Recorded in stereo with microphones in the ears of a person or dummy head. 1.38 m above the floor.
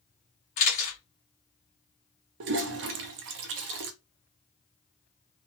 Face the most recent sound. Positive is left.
turn(degrees=-60)  # may be behind; listen again after turning